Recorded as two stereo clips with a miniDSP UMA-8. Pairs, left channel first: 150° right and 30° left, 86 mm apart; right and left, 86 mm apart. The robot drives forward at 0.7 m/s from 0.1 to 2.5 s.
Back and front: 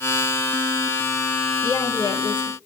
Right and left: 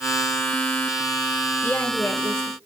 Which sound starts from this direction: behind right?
A woman speaking, at 1.6 s.